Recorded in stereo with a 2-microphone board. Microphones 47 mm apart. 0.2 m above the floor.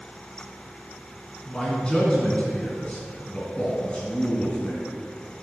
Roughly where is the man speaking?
Left.